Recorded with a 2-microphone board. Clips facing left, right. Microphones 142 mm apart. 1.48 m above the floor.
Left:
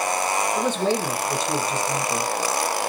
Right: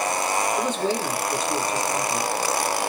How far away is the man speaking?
About 1.3 m.